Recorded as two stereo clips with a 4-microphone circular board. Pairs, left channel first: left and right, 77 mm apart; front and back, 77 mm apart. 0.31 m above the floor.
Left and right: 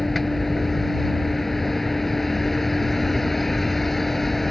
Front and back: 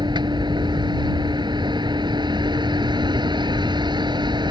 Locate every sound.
0.0 s a vehicle: straight behind